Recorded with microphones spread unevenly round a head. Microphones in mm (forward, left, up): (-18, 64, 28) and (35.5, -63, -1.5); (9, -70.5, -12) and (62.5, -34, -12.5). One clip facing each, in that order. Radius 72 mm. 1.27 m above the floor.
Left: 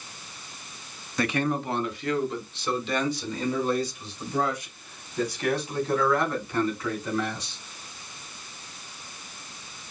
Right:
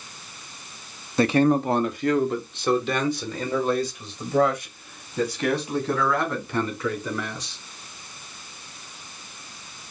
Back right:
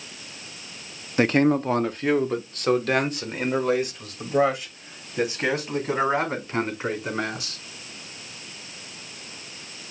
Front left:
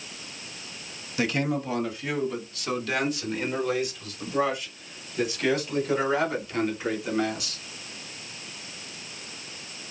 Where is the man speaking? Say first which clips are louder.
Right 8 dB, back right 7 dB; 110° right, 0.6 m; by 7.6 s 100° right, 4.5 m.